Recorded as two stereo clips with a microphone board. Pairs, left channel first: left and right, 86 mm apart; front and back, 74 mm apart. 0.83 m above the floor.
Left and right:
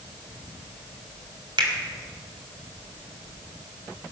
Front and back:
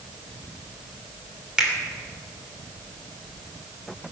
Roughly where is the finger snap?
Right.